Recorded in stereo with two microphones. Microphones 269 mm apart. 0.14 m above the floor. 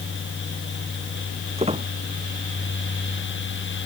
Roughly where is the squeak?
Right.